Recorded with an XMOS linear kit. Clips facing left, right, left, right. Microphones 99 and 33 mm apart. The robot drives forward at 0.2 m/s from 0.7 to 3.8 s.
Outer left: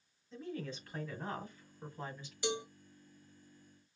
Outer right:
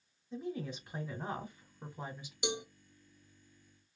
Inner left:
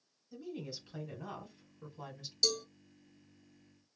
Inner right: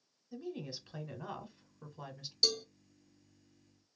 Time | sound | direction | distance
0.3 | a woman speaking | 15° right (ahead or behind) | 1.2 m
2.4 | a cowbell | 20° right (ahead or behind) | 0.5 m